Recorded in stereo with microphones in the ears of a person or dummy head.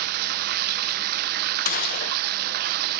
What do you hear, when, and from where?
0.0 s running water: 60° right (ahead or behind), 1.0 m
1.6 s a gunshot: 50° left (ahead or behind), 0.6 m